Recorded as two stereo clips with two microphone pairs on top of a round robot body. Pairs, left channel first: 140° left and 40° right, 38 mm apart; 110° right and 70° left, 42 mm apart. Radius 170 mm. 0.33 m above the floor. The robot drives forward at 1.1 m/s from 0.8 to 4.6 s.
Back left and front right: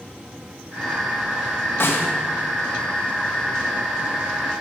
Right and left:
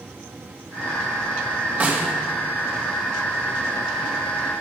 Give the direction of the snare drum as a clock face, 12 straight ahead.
8 o'clock.